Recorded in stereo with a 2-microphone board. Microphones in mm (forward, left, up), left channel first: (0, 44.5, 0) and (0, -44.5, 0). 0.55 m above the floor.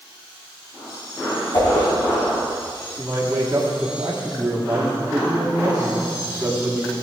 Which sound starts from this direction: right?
A man speaking, at 3.0 s.